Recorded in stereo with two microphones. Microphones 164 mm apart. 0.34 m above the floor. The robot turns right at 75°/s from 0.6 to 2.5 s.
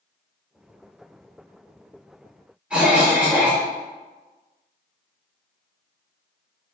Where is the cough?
5° right (ahead or behind), 0.9 m.